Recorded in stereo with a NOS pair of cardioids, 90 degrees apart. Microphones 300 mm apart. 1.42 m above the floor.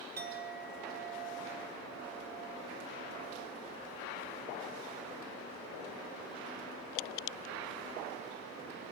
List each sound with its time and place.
0.2 s a clink: 35° right, 0.9 m